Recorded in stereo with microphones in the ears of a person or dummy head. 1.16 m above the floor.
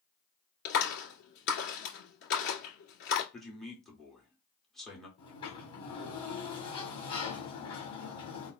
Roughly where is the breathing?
I don't hear breathing.